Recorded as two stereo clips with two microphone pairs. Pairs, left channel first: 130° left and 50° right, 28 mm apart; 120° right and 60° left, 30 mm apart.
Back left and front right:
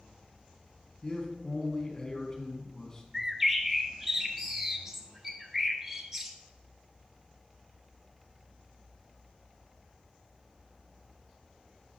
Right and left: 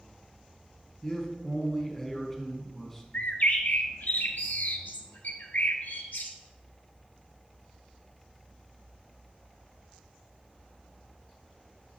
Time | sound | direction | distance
1.0 | a man speaking | straight behind | 1.3 m
3.1 | a bird | 120° right | 0.8 m